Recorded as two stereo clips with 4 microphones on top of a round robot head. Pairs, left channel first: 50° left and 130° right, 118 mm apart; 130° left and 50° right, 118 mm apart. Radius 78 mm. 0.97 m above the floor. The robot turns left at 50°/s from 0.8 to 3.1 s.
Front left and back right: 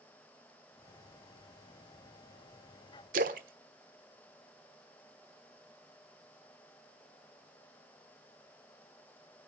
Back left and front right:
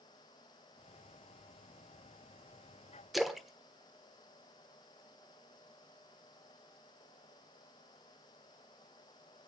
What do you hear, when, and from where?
3.1 s a splash: 140° right, 1.2 m